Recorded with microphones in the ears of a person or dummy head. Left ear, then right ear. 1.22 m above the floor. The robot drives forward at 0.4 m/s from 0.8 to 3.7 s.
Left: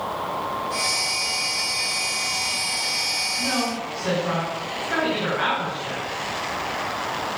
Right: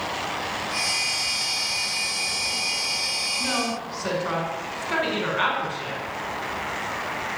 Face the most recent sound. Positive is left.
turn(degrees=-85)